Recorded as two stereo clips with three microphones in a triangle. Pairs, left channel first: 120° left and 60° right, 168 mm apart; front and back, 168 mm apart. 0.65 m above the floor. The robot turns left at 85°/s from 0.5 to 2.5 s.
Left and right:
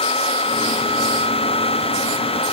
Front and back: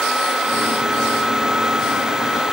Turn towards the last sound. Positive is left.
No sound to turn to.